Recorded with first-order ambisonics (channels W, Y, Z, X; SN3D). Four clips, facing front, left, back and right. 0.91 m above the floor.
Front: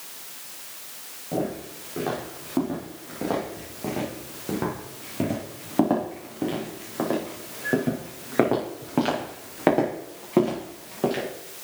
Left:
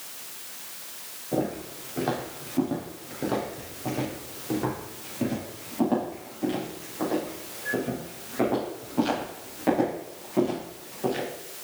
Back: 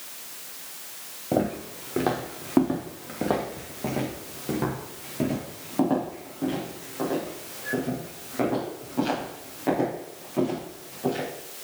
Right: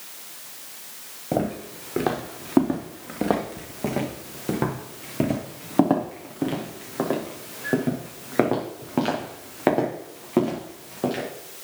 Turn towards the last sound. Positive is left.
turn(degrees=-40)